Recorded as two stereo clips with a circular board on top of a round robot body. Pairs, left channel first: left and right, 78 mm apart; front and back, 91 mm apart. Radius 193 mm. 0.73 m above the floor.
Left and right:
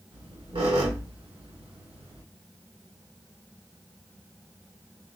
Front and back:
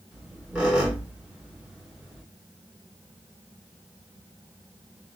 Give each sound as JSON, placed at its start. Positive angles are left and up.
{"t": 0.1, "sound": "a squeak", "azimuth_deg": -95, "distance_m": 2.0}